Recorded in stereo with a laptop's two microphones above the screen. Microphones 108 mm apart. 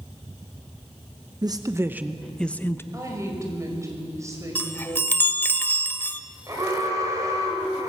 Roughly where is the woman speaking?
Right.